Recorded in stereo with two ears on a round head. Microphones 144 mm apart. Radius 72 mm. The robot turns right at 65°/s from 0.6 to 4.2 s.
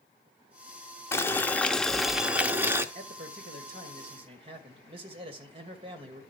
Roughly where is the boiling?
Centre.